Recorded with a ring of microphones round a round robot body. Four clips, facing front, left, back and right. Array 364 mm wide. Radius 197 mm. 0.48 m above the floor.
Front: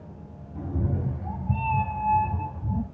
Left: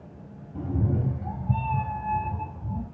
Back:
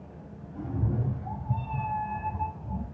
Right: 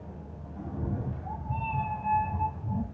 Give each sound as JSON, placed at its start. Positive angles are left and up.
{"t": 0.6, "sound": "a cat meowing", "azimuth_deg": 70, "distance_m": 3.0}